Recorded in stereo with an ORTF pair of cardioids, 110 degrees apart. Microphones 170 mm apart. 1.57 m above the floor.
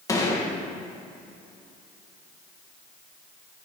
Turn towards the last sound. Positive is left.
turn(degrees=20)